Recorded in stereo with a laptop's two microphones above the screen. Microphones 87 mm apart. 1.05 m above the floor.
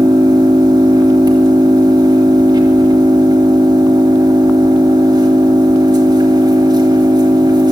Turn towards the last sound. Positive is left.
turn(degrees=-55)  # may be behind; listen again after turning